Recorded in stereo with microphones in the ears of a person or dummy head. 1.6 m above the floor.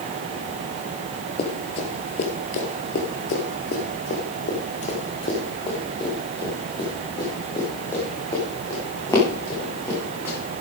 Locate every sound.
1.4 s running footsteps: 35° left (ahead or behind), 2 m; by 10.3 s 20° left (ahead or behind), 6.5 m